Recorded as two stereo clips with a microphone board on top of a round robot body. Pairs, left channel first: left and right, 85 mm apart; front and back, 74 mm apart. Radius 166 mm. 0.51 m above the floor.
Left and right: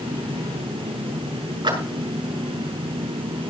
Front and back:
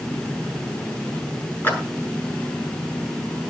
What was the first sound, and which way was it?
A clap, 65° right.